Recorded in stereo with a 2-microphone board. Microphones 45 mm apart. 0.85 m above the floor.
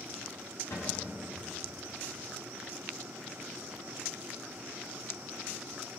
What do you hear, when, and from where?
0.7 s a cupboard door: 80° left, 7.5 m